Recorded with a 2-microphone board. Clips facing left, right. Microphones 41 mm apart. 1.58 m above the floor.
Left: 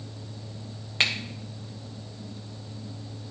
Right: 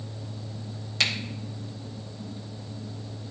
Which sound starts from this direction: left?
A finger snap, at 1.0 s.